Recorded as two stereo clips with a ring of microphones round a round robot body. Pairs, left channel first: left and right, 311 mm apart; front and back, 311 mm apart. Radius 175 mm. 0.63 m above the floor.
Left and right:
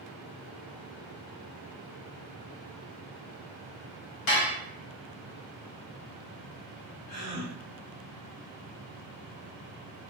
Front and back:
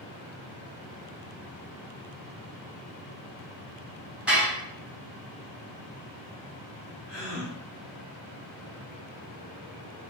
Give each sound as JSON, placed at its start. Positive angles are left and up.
{"t": 4.3, "sound": "dishes clattering", "azimuth_deg": 95, "distance_m": 1.1}
{"t": 7.1, "sound": "a gasp", "azimuth_deg": 100, "distance_m": 1.6}